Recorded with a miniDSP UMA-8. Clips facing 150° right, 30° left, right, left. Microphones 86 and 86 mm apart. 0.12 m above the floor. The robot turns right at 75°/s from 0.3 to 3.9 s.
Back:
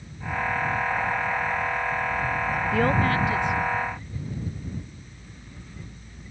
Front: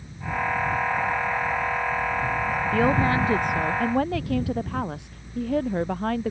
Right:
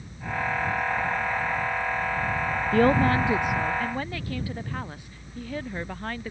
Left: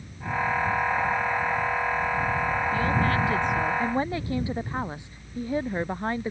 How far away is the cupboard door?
No cupboard door in this recording.